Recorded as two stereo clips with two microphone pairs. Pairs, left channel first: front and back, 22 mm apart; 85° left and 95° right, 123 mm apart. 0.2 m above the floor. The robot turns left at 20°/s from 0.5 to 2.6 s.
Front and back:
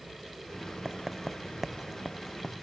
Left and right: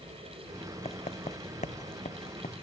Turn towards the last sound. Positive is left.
turn(degrees=85)